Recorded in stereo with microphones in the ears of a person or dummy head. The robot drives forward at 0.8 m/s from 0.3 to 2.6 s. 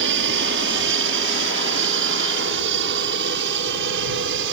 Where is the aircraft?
60° right (ahead or behind).